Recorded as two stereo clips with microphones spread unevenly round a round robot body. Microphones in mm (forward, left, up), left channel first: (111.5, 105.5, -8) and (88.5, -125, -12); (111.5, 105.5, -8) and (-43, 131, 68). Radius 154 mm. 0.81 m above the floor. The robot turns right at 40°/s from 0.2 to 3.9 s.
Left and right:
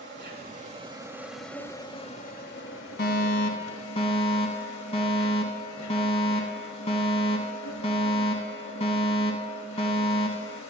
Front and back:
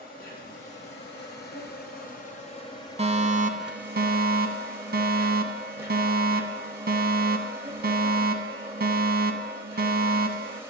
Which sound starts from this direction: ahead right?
An insect, at 0.0 s.